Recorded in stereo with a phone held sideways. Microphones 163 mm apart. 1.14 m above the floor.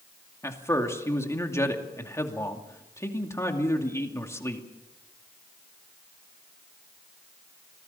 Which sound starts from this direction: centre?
A man speaking, at 0.4 s.